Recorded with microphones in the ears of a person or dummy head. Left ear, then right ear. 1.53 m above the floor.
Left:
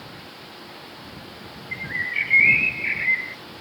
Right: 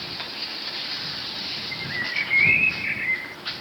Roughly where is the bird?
Centre.